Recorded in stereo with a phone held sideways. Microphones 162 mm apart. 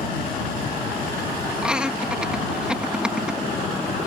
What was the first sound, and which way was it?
Laughter, 5° right (ahead or behind).